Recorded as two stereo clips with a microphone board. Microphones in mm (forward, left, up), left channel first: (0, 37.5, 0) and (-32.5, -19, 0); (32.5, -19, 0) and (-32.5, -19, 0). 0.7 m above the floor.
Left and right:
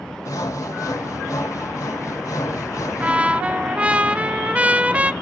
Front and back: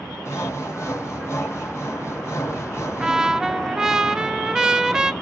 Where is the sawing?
45° left, 4 m.